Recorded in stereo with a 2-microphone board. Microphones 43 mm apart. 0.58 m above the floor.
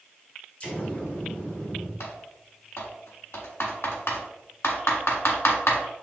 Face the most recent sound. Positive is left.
turn(degrees=75)  # may be behind; listen again after turning